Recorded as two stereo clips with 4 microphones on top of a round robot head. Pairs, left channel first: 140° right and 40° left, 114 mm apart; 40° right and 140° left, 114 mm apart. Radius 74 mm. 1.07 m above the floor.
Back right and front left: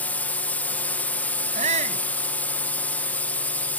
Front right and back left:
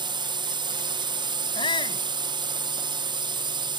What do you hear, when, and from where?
0.0 s a drone: 150° left
1.6 s a shout: 10° left